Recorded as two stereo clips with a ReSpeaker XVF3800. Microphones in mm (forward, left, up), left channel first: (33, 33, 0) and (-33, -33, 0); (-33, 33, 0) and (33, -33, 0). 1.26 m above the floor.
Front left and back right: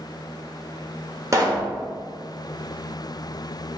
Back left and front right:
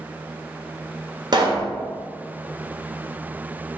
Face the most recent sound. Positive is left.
turn(degrees=-80)